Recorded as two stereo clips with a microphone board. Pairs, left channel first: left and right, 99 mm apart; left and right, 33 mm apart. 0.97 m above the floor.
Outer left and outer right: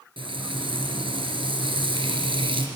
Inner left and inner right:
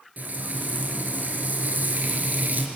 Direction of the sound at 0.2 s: 65° right (ahead or behind).